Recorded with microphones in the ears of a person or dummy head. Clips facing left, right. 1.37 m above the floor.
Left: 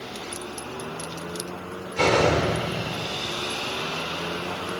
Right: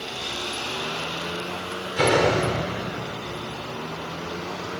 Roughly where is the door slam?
Centre.